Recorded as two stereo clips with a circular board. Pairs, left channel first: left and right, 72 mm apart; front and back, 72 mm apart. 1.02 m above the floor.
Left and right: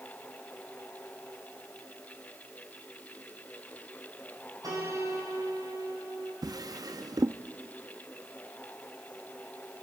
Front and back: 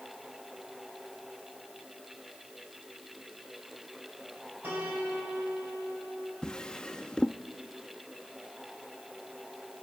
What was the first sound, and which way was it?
A piano, 120° right.